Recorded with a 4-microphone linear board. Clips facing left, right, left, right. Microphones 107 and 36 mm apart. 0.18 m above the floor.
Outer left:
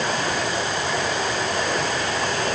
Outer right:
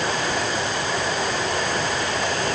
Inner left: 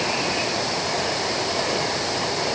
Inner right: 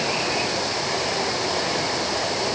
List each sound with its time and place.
Only background noise.